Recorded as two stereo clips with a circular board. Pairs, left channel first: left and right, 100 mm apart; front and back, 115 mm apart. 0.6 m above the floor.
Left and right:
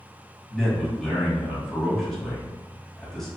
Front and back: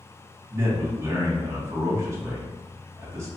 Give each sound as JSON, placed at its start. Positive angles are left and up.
{"t": 0.5, "sound": "a man speaking", "azimuth_deg": 170, "distance_m": 1.0}